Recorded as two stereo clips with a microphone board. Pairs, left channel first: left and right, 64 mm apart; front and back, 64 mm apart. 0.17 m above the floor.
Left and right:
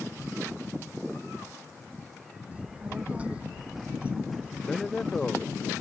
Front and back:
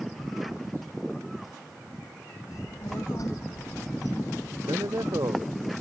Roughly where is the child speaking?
Ahead right.